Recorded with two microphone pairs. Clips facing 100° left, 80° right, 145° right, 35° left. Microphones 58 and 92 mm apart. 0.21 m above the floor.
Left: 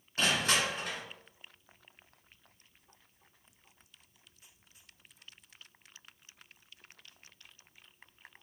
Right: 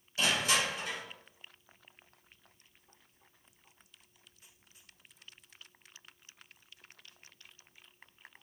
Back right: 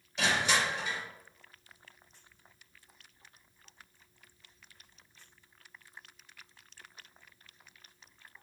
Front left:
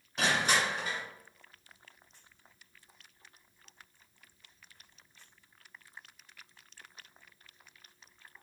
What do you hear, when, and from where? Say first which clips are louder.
0.2 s crushing: left 1 dB, even; 65° left, 1.8 m